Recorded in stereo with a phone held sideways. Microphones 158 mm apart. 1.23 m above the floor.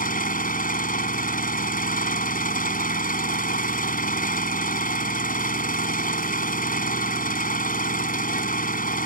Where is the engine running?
65° left (ahead or behind).